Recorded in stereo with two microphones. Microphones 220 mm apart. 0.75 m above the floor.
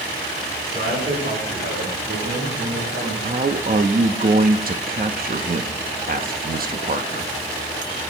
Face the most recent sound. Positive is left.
turn(degrees=-40)  # may be behind; listen again after turning